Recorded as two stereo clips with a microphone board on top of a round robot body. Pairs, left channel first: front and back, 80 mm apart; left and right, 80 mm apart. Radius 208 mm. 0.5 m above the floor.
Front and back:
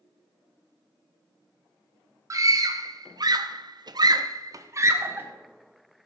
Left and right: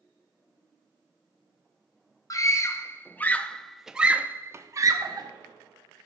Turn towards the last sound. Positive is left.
turn(degrees=-120)